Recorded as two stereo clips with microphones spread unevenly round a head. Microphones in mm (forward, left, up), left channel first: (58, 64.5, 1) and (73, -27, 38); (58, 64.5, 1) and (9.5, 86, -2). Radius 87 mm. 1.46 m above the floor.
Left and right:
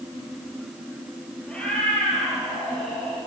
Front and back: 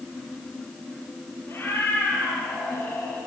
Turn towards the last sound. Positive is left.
turn(degrees=15)